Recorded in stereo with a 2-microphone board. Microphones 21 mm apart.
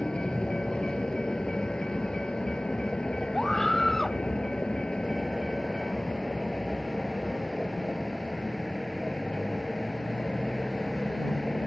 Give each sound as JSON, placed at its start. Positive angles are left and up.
{"t": 0.0, "sound": "a vehicle", "side_deg": 45}
{"t": 3.3, "sound": "a scream", "side_deg": 15}